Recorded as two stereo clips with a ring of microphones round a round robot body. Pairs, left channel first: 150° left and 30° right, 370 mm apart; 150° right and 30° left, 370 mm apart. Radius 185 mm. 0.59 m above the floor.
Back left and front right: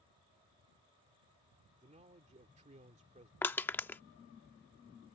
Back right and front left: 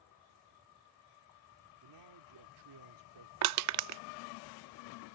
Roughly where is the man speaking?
Ahead left.